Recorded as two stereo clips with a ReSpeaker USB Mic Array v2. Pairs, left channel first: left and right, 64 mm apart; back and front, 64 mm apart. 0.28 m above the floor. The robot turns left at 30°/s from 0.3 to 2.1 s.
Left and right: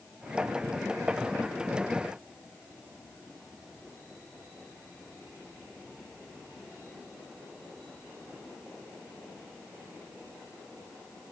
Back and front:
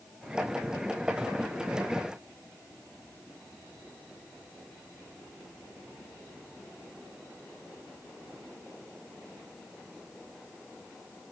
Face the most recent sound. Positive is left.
No sound to turn to.